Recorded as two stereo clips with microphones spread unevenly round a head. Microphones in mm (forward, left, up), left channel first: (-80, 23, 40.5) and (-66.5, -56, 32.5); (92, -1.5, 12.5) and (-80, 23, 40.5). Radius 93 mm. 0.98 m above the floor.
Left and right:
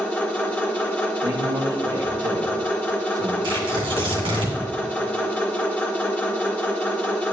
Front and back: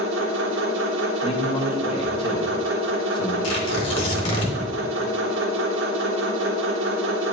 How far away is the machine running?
About 1.6 m.